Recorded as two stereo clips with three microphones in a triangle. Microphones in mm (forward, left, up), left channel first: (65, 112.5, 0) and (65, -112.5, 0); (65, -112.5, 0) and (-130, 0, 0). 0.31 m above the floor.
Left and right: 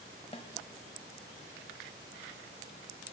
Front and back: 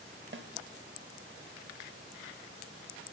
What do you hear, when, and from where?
0.3 s a snare drum: 145° left, 0.6 m